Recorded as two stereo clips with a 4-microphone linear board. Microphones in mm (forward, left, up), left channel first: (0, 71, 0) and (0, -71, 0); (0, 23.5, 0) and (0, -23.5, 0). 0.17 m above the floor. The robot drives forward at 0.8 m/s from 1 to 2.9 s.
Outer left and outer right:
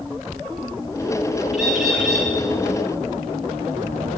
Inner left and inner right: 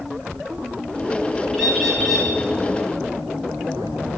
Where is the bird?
Centre (ahead or behind), 4.5 m.